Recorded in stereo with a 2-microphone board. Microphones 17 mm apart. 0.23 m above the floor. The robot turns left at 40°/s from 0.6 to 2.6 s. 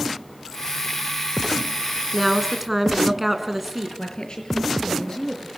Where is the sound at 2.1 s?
5° left (ahead or behind), 2.5 m; by 3.9 s 15° right (ahead or behind), 2.5 m.